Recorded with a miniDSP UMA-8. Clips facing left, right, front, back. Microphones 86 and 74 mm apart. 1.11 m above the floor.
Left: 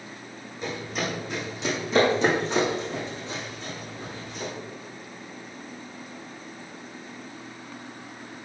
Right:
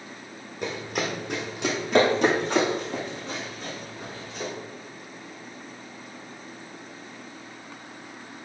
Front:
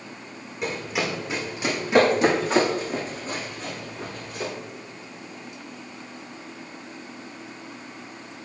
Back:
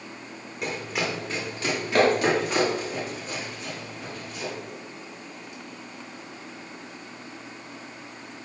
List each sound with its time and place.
0.6 s running footsteps: 90° right, 2.5 m; by 4.5 s 40° right, 3.5 m